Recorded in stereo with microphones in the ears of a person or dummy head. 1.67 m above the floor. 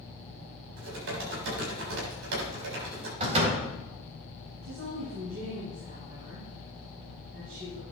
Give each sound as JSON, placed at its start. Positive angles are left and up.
{"t": 0.8, "sound": "typing on a keyboard", "side_deg": -60, "distance_m": 6.5}
{"t": 3.2, "sound": "a door slam", "side_deg": -30, "distance_m": 4.0}
{"t": 4.6, "sound": "a woman speaking", "side_deg": -40, "distance_m": 6.0}